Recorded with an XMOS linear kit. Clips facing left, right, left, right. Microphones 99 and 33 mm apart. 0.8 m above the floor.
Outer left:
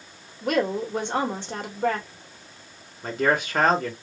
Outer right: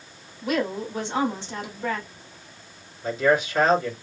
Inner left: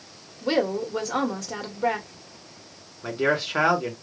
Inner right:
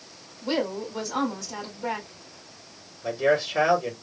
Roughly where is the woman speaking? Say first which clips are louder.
Outer left 2 dB, inner left 4 dB; left.